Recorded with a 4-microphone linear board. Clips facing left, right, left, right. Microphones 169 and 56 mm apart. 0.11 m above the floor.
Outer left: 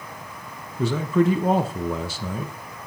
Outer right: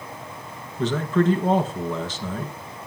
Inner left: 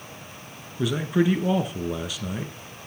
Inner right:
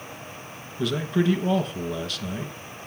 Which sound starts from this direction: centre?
A man speaking, at 0.8 s.